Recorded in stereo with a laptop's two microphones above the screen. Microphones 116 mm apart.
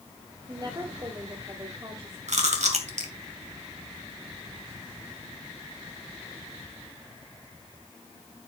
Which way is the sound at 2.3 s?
80° right.